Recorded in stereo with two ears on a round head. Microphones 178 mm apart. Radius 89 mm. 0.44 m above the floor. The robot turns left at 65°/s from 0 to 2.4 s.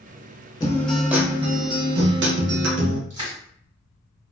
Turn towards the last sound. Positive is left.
turn(degrees=-40)  # may be behind; listen again after turning